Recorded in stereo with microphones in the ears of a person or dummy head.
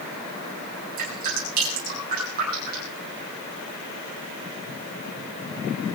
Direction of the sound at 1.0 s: 50° right (ahead or behind).